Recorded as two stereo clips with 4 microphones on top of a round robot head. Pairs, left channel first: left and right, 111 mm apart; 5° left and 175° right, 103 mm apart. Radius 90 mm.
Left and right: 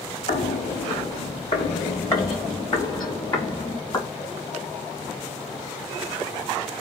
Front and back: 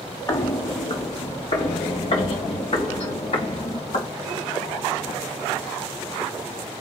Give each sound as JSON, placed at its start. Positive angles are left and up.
{"t": 0.3, "sound": "footsteps", "azimuth_deg": 60, "distance_m": 1.2}